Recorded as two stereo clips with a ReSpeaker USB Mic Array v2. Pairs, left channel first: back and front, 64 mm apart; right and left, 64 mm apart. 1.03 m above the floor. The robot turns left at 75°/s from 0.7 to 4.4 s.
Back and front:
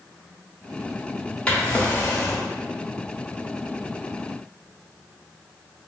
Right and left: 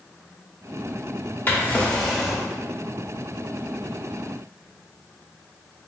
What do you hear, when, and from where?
1.5 s a drawer: 120° right, 0.6 m; by 2.5 s 165° left, 0.6 m